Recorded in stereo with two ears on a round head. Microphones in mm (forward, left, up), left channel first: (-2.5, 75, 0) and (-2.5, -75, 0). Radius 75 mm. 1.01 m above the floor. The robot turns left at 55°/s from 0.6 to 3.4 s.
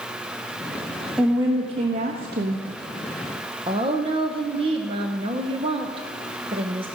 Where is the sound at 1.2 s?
5° right, 1.0 m; by 2.7 s 85° right, 1.0 m.